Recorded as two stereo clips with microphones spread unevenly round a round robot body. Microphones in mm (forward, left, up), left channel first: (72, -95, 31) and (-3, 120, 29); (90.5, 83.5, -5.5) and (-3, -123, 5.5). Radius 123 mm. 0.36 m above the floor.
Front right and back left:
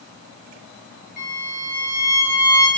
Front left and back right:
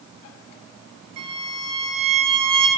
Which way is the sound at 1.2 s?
120° right.